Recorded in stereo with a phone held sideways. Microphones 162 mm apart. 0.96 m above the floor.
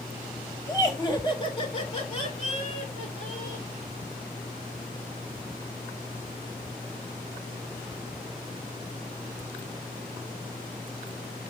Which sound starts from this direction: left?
Laughter, at 0.7 s.